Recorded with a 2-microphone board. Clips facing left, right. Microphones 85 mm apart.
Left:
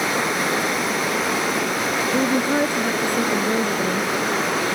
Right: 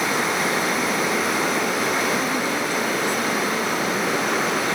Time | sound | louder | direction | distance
2.1 | a woman speaking | left 4 dB | 55° left (ahead or behind) | ?